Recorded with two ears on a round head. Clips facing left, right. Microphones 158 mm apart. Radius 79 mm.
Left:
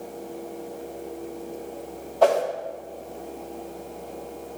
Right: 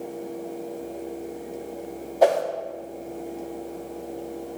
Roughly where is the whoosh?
Centre.